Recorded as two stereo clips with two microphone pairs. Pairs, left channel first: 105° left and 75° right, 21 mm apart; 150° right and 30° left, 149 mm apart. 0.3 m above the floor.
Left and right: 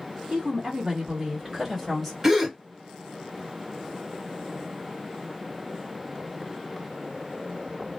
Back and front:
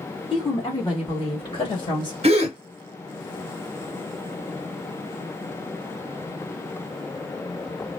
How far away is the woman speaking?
About 1.9 m.